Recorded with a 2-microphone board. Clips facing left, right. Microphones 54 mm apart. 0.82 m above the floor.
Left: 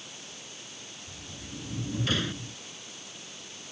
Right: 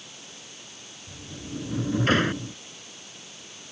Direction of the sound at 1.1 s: 45° right (ahead or behind).